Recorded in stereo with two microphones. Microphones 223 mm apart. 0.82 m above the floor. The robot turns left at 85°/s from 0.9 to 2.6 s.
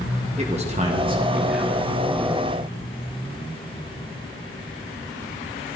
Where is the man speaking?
120° right, 1.0 m; by 1.9 s 160° left, 1.0 m.